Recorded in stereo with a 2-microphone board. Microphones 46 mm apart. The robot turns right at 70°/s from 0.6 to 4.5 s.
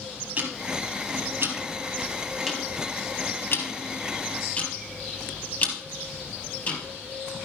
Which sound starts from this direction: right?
Ticking, at 0.4 s.